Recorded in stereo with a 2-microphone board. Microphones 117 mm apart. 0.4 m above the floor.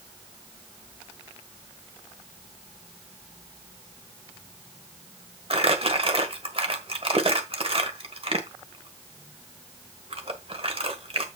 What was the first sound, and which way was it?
Crumpling, 55° right (ahead or behind).